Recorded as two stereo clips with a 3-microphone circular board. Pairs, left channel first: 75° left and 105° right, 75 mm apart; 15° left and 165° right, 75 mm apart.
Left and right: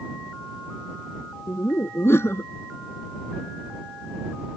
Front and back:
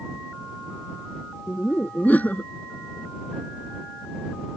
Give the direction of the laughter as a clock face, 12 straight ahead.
10 o'clock.